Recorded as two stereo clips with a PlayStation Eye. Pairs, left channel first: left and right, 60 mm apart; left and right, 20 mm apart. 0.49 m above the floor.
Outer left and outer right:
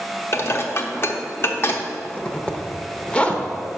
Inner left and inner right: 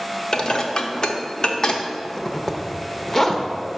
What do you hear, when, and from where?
0.3 s dishes clattering: 40° left (ahead or behind), 0.6 m
1.9 s a zipper: 20° left (ahead or behind), 0.5 m